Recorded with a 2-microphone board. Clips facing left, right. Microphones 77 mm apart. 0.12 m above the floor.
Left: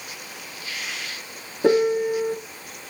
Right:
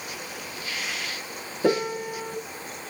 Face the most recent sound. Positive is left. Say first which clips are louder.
# left 6 dB
turn(degrees=20)  # may be behind; listen again after turning